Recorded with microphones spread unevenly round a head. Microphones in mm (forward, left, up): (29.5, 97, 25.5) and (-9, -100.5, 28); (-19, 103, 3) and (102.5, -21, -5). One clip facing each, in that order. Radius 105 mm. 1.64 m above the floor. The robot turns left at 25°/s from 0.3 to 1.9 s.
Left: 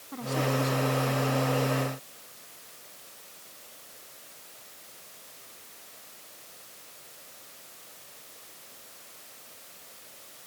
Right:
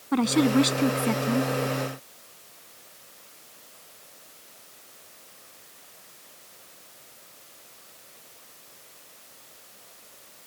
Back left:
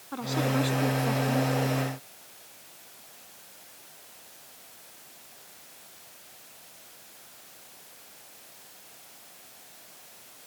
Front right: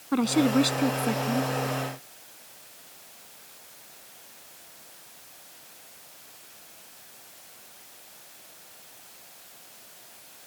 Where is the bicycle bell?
I don't hear a bicycle bell.